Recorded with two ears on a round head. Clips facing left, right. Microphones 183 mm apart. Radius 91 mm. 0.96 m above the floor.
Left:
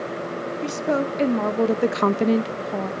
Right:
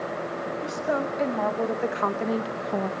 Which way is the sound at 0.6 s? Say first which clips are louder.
Left 5 dB; 40° left (ahead or behind).